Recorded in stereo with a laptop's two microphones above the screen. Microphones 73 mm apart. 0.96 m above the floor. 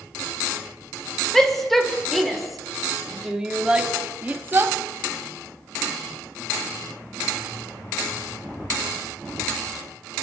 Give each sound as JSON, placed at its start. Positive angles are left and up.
{"t": 1.3, "sound": "a shout", "side_deg": 5, "distance_m": 3.0}